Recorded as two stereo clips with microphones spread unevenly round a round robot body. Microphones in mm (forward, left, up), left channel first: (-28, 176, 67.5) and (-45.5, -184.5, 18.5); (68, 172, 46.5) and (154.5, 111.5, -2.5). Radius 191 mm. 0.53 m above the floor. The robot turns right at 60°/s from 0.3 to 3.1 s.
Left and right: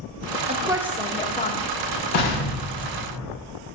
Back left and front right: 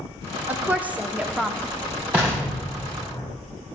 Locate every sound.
0.5 s a woman speaking: 40° right, 0.8 m; by 1.7 s 30° left, 0.8 m
2.1 s an explosion: 35° left, 3 m; by 3.3 s 95° left, 3 m